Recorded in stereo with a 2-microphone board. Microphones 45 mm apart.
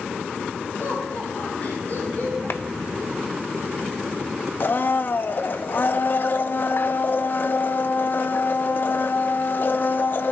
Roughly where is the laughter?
Left.